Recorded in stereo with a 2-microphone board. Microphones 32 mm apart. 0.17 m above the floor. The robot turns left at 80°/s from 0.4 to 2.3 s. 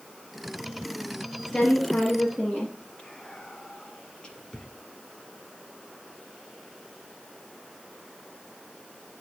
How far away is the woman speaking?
About 3.5 m.